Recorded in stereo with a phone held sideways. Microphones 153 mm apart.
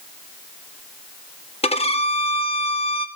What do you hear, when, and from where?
1.6 s a violin: 40° left (ahead or behind), 0.7 m